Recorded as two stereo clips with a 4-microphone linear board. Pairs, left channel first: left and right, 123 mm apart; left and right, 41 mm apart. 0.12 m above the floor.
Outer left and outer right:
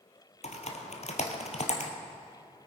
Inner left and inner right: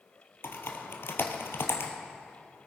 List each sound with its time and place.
0.4 s typing on a keyboard: 65° left (ahead or behind), 1.6 m